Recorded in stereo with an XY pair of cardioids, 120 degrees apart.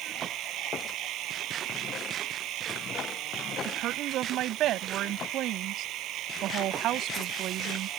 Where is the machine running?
70° right.